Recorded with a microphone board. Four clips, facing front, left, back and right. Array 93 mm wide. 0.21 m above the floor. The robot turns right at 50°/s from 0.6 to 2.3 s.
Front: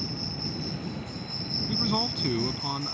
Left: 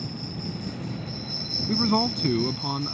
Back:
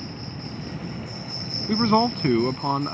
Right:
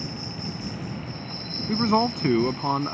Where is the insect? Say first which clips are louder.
Even, even; 150° right; by 2.9 s 65° right.